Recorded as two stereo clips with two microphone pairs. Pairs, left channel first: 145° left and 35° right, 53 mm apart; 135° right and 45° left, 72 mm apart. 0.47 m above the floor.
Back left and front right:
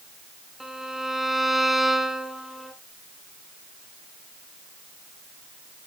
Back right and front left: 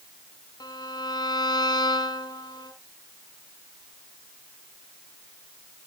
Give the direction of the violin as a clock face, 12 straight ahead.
4 o'clock.